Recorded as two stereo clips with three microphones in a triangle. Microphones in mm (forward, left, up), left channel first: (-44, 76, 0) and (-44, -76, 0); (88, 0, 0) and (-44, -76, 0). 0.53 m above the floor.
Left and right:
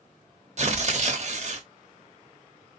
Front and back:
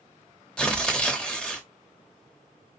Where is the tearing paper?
55° right, 0.8 m.